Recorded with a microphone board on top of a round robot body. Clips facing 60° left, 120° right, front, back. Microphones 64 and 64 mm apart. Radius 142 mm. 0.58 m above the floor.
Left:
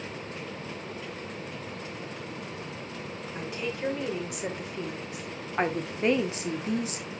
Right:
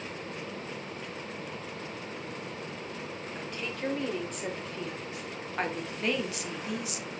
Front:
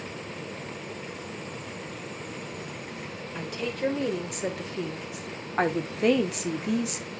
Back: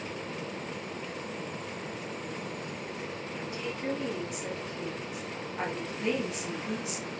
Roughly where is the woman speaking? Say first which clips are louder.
Left 5 dB, front 7 dB; ahead right.